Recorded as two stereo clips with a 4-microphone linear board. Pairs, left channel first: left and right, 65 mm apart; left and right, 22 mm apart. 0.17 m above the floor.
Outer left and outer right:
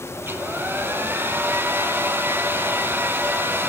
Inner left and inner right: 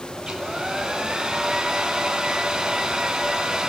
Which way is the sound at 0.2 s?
35° right (ahead or behind).